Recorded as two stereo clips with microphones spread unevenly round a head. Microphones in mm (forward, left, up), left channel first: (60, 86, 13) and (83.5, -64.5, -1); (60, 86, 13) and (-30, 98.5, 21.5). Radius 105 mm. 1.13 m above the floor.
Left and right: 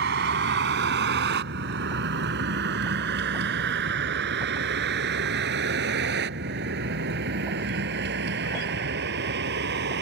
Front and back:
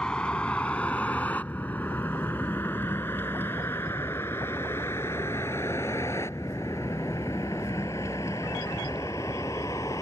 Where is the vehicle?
95° right; by 10.0 s 85° right.